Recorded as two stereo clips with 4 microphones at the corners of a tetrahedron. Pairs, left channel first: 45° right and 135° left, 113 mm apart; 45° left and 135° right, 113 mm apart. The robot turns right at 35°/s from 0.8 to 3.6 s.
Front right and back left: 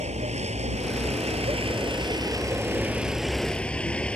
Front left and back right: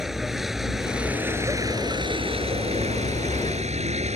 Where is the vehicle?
135° left; by 4.2 s 125° right.